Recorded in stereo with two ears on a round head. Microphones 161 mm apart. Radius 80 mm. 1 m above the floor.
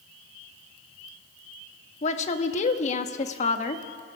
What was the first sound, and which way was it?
A woman speaking, 40° left (ahead or behind).